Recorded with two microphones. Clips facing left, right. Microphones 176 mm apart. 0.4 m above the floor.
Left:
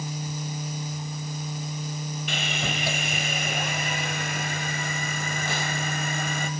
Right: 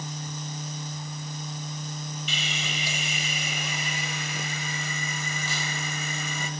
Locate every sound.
2.3 s sawing: 60° left (ahead or behind), 1.5 m